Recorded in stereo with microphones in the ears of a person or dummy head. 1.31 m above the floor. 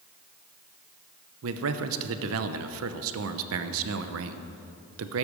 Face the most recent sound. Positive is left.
turn(degrees=-80)